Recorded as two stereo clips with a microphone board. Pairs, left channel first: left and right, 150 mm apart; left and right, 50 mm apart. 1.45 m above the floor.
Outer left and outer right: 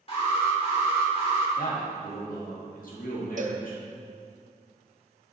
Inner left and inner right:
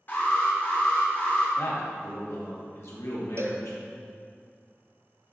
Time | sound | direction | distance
0.1 | an alarm | 40° left (ahead or behind) | 3 m
1.6 | a man speaking | 65° left (ahead or behind) | 2 m
3.4 | a cowbell | 55° right (ahead or behind) | 0.7 m